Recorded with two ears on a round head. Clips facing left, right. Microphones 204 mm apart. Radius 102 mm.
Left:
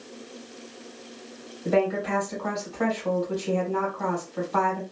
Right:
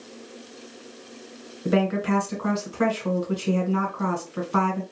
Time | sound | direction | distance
1.6 | a woman speaking | 30° right (ahead or behind) | 1.2 m